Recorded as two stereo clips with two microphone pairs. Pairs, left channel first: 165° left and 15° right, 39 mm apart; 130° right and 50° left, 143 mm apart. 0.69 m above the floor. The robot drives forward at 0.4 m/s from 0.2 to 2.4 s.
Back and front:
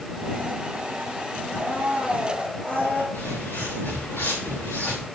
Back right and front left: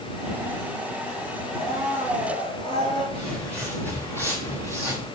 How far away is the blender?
About 4.5 m.